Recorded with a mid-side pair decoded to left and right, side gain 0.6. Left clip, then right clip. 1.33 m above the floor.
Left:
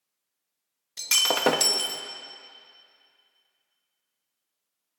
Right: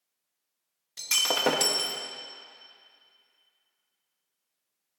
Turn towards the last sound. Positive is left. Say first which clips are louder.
# left 3 dB
turn(degrees=20)